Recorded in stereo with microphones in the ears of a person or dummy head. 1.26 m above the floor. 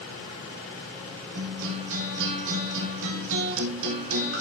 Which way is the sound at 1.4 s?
75° right (ahead or behind).